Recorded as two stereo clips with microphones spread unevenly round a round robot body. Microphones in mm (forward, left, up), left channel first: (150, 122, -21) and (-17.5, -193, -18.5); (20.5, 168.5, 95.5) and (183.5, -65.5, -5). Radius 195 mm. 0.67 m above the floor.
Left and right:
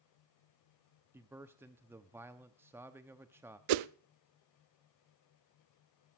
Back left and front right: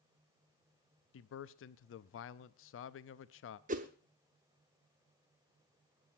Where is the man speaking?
165° left, 0.6 m.